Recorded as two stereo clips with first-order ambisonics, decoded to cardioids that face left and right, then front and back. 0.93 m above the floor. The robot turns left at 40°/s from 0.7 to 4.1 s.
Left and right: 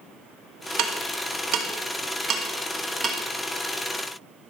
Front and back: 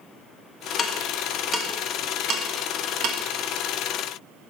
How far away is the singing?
I don't hear singing.